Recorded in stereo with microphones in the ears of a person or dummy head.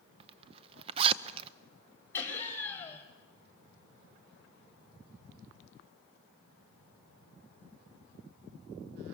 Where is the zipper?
35° right (ahead or behind), 0.6 m.